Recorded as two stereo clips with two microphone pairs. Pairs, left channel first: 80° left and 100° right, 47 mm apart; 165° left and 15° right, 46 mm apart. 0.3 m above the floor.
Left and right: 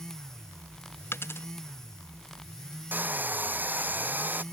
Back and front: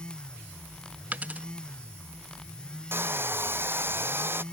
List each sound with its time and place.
1.1 s a dropped coin: 45° left
2.9 s a hair dryer: 50° right